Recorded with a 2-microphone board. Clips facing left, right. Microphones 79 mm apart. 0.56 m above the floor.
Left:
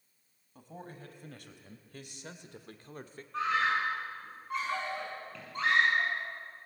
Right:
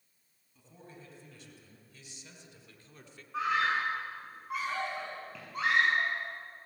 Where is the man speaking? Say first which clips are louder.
Left 6 dB; 60° left (ahead or behind), 3.5 m; by 3.2 s 40° left (ahead or behind), 1.2 m.